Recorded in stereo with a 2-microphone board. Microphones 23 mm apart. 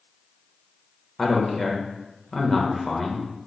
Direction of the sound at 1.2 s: 15° left (ahead or behind).